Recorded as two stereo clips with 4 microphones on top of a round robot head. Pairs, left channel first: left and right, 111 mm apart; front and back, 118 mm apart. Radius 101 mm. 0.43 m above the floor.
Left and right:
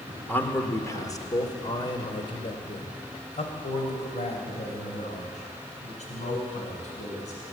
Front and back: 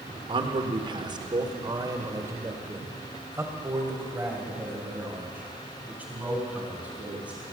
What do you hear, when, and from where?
0.3 s a man speaking: 160° left, 1.5 m; by 7.4 s 100° left, 5 m